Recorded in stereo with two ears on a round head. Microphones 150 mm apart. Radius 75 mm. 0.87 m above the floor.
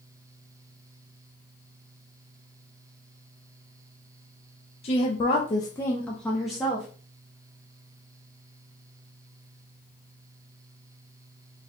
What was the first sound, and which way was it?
A woman speaking, 40° left (ahead or behind).